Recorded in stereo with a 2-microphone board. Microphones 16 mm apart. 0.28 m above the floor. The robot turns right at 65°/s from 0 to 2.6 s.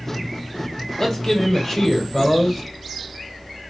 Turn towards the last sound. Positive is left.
turn(degrees=15)  # may be behind; listen again after turning